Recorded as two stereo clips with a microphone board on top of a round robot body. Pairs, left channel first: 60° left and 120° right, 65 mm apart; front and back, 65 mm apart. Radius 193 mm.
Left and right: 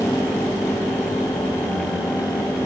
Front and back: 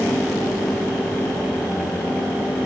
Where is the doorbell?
No doorbell in this recording.